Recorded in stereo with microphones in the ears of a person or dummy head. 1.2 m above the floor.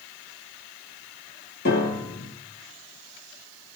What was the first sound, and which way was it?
A piano, 50° left (ahead or behind).